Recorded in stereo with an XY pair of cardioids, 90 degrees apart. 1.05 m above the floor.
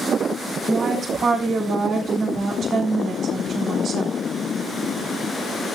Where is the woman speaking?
65° right, 3.5 m.